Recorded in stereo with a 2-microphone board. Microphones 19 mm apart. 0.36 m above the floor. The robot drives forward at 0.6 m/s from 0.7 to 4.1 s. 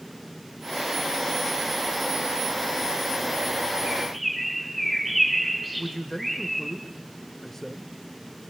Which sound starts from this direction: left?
A man speaking, at 5.8 s.